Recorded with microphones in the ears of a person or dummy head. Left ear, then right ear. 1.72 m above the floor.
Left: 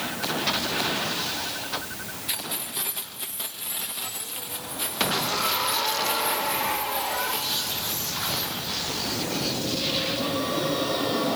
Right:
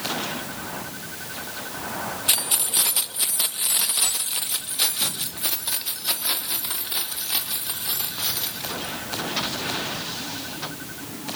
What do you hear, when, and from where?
2.3 s keys jangling: 35° right (ahead or behind), 1.0 m; by 9.0 s 45° right (ahead or behind), 5 m